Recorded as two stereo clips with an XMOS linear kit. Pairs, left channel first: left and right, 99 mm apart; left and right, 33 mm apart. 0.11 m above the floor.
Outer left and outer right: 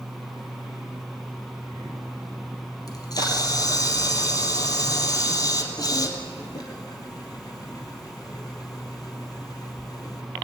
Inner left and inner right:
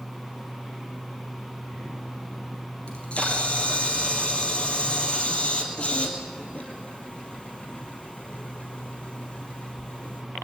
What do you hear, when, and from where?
2.9 s a camera shutter: 40° left (ahead or behind), 2.0 m